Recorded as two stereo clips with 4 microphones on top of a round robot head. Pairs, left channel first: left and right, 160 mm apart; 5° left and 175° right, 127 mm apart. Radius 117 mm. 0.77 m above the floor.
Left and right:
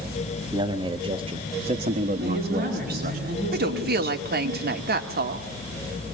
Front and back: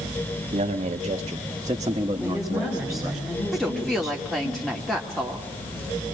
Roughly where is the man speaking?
Behind right.